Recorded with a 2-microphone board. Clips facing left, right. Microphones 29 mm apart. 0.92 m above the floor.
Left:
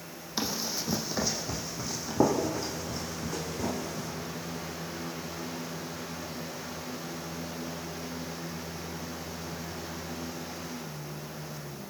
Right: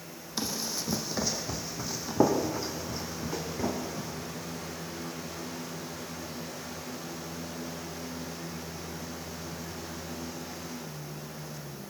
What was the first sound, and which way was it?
Running footsteps, 15° left (ahead or behind).